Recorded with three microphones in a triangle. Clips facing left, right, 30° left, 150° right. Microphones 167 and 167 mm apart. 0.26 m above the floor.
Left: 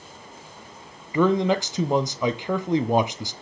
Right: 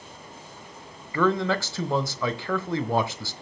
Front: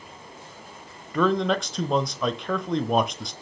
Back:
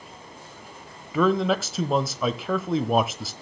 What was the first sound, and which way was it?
A man speaking, 130° left.